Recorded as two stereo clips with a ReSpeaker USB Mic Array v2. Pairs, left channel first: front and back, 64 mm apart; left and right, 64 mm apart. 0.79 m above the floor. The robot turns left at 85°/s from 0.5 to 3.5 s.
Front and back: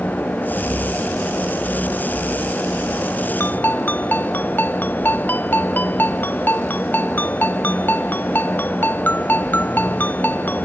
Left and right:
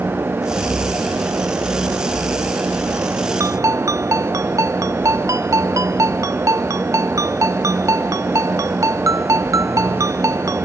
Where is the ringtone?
50° right; by 10.7 s 60° right.